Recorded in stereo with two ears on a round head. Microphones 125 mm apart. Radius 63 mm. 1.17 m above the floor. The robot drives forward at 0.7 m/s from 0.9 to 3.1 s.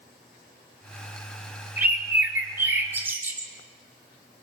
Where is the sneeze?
I don't hear a sneeze.